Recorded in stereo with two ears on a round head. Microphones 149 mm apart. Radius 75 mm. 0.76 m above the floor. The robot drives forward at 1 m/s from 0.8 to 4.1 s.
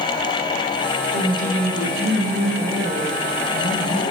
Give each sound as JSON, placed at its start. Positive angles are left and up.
{"t": 1.1, "sound": "a woman speaking", "side_deg": -65, "distance_m": 3.0}